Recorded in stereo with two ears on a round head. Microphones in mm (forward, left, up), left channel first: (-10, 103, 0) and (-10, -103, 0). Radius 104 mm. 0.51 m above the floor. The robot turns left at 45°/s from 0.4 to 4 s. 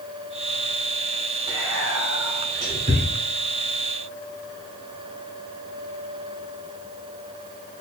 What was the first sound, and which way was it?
Whispering, 45° right (ahead or behind).